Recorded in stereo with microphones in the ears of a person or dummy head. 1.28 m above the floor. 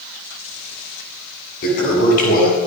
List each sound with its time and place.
1.6 s a toilet flushing: 45° left (ahead or behind), 8 m